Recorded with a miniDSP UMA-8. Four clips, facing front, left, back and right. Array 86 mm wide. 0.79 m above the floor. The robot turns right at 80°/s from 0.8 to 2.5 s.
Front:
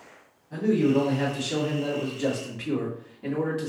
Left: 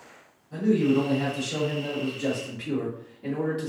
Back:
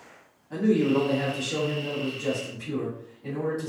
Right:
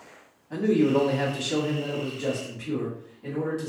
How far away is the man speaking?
About 1.9 m.